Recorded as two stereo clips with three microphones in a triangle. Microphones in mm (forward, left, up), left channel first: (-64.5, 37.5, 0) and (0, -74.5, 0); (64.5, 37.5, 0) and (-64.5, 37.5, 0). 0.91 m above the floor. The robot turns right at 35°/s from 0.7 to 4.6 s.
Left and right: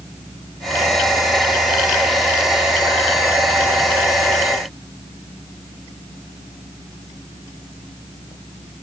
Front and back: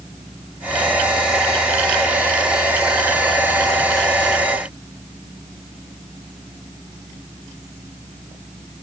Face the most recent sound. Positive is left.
No sound to turn to.